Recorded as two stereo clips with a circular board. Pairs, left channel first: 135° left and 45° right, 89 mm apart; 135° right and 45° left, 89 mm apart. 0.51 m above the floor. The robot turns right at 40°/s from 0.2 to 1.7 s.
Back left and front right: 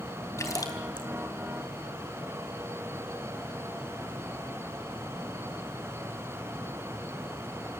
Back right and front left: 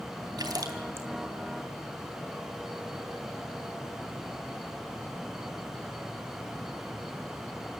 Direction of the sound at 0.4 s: 80° left.